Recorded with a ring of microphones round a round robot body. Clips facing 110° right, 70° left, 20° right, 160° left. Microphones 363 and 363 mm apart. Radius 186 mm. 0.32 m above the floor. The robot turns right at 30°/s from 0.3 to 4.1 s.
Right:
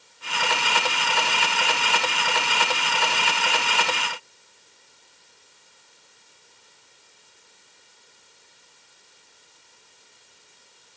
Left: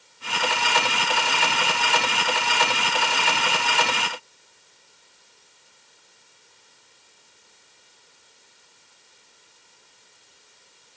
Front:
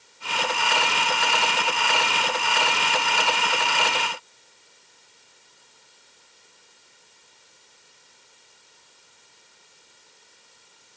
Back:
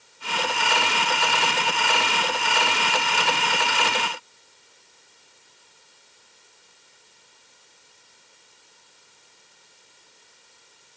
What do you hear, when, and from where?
Only background noise.